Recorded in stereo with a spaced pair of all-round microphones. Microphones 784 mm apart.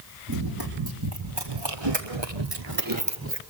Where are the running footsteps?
25° right (ahead or behind), 4 m; by 3.4 s 15° right (ahead or behind), 1.9 m.